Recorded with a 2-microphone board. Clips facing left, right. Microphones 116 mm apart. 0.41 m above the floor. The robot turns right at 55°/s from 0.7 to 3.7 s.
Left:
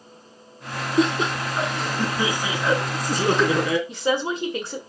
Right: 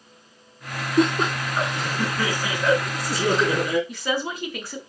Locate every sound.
1.0 s laughter: 70° right, 4 m; by 3.8 s 80° left, 4 m
3.9 s a woman speaking: 25° left (ahead or behind), 1.5 m